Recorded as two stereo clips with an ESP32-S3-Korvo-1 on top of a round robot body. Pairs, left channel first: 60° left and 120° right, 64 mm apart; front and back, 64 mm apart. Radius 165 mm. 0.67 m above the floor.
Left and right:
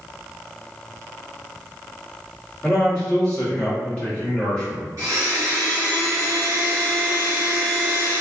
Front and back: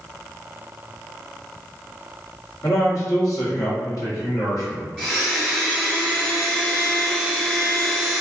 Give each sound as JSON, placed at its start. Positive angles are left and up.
{"t": 2.6, "sound": "a man speaking", "azimuth_deg": -10, "distance_m": 1.5}
{"t": 5.0, "sound": "a blender", "azimuth_deg": -80, "distance_m": 1.4}